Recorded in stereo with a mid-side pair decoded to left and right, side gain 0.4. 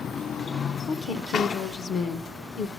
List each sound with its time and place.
0.9 s a woman speaking: 65° left, 1.1 m